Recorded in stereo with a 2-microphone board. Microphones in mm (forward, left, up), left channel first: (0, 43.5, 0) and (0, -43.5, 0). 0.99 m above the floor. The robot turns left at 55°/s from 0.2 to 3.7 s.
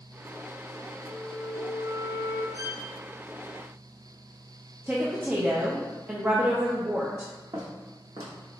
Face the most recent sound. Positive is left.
turn(degrees=-50)  # may be behind; listen again after turning